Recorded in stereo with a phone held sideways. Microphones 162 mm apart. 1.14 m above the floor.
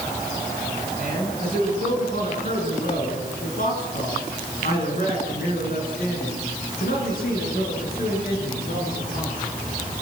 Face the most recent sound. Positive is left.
turn(degrees=70)  # may be behind; listen again after turning